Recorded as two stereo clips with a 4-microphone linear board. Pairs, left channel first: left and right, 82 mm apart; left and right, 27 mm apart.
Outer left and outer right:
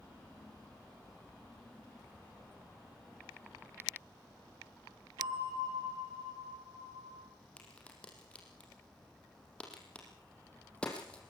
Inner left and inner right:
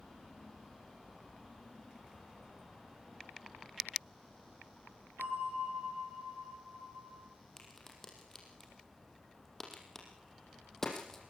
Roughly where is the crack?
Centre.